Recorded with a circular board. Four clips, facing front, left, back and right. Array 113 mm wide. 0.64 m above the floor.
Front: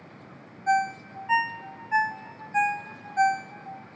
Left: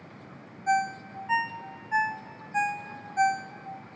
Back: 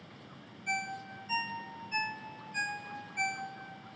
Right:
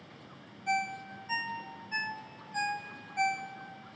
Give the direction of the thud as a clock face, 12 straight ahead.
I don't hear a thud.